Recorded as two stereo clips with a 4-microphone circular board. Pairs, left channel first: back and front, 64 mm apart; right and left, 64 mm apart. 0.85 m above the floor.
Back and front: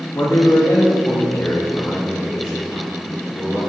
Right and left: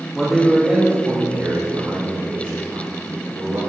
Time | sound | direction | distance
0.1 | a man speaking | 175° right | 1.4 m